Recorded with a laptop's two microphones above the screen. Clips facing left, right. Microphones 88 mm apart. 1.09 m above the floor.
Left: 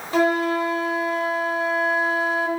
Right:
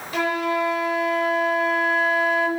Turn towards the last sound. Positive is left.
turn(degrees=35)  # may be behind; listen again after turning